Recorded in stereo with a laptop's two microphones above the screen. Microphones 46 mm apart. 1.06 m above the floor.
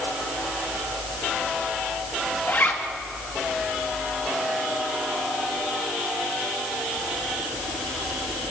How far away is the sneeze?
I don't hear a sneeze.